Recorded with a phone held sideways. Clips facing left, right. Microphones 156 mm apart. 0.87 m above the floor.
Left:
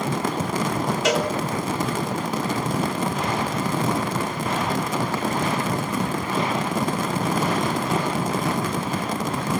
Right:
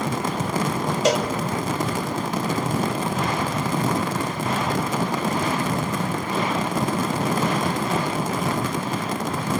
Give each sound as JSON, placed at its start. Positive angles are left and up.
{"t": 1.1, "sound": "a cowbell", "side_deg": -35, "distance_m": 1.0}